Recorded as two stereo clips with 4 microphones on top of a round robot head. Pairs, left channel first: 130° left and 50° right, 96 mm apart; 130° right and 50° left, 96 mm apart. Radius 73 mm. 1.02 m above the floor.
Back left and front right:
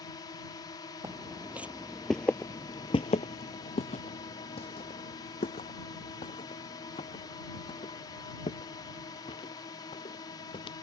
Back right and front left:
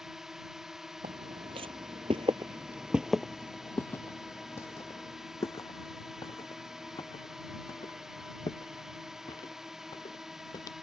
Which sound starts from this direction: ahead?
Footsteps, at 1.0 s.